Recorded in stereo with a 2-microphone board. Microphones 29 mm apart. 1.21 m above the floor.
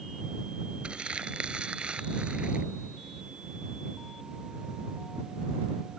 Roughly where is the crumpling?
Right.